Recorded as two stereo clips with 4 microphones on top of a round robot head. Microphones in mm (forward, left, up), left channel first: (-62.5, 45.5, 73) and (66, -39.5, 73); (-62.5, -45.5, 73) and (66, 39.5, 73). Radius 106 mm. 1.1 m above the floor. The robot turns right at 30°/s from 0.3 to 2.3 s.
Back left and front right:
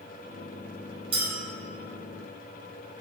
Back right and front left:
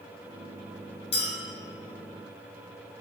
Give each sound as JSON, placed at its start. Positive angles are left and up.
{"t": 1.1, "sound": "a clink", "azimuth_deg": -90, "distance_m": 0.9}